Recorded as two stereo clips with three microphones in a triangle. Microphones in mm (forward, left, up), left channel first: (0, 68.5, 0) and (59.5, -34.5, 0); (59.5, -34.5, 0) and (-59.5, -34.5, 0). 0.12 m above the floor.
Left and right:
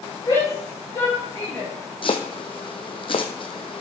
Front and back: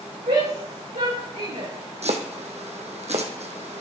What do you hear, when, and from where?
0.3 s a shout: straight behind, 6.5 m; by 1.7 s 175° right, 7 m
2.0 s chopping: 160° left, 1.5 m